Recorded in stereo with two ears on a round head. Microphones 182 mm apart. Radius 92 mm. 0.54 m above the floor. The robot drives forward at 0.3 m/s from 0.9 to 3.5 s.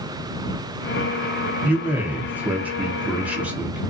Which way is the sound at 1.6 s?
5° right (ahead or behind).